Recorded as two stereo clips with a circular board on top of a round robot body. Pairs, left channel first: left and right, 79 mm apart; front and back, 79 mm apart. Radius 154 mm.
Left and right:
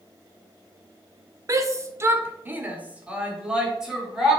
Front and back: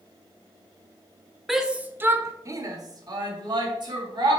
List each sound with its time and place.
1.5 s a shout: 95° right, 1.1 m; by 4.4 s 175° right, 2.5 m